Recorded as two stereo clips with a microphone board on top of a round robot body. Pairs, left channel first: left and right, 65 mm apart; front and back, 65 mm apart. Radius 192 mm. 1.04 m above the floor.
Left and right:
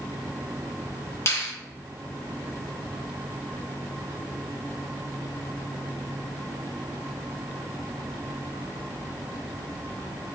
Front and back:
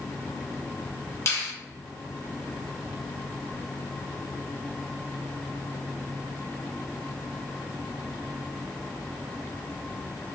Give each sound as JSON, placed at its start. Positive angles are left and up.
{"t": 1.3, "sound": "a finger snap", "azimuth_deg": 45, "distance_m": 1.2}